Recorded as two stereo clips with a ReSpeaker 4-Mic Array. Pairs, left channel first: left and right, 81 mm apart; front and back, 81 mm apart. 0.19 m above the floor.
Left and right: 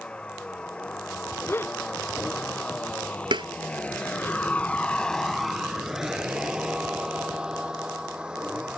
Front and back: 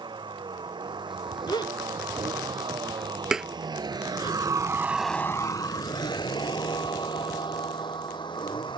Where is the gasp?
30° left.